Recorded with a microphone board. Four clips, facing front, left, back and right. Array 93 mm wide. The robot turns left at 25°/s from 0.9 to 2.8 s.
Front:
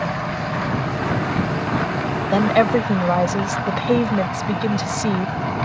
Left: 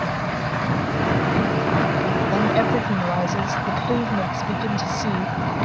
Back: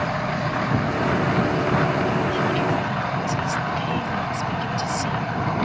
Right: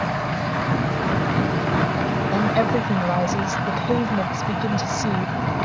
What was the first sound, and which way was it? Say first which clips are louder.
A woman speaking: even, front 6 dB; 5° left.